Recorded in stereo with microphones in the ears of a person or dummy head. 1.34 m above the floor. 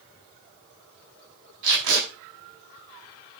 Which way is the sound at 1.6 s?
80° right.